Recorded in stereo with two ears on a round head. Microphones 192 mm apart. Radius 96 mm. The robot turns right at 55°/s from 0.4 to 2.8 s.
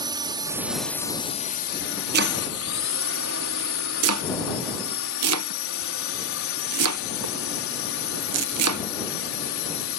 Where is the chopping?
50° right (ahead or behind); by 8.8 s 85° right.